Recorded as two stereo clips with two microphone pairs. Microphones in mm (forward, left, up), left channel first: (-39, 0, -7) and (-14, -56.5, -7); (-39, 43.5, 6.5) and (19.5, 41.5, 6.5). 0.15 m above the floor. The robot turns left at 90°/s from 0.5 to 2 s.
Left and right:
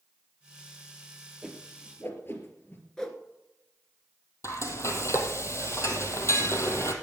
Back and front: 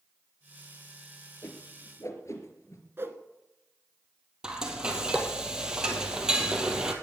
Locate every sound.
1.4 s a whoosh: 145° right, 3 m; by 2.8 s 165° left, 3 m
3.0 s a whoosh: 35° left, 1.7 m
4.4 s frying: 75° left, 2 m